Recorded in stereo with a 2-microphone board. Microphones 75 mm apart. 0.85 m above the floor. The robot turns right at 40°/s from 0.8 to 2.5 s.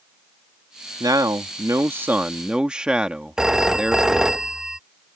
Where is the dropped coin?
No dropped coin in this recording.